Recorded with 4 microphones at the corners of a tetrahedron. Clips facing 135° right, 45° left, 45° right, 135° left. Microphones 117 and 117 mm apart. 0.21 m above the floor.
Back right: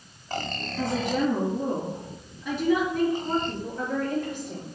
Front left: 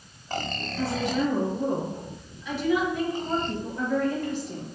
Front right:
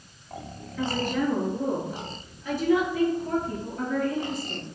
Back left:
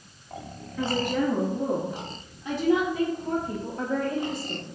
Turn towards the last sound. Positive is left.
turn(degrees=-170)